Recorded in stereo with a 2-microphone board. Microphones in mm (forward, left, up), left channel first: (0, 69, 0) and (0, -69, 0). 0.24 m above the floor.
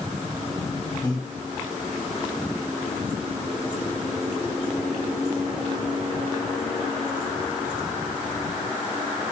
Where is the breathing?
30° left (ahead or behind), 1.8 m.